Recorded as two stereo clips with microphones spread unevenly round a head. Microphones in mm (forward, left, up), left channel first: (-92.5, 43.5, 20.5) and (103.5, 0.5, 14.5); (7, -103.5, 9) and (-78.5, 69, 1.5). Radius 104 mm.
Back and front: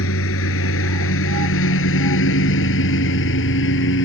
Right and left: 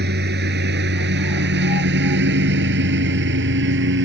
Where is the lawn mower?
150° left; by 4.0 s 140° left.